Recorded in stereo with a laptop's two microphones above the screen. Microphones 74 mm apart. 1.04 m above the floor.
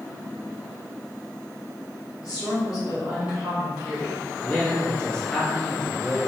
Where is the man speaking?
10° left (ahead or behind), 0.9 m.